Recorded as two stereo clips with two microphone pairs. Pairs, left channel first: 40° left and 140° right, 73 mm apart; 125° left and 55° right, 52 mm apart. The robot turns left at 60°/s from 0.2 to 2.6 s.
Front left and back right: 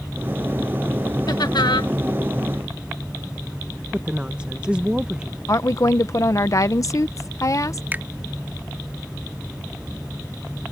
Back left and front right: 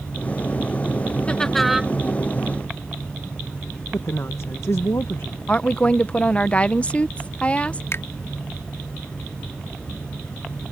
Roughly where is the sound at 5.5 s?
Left.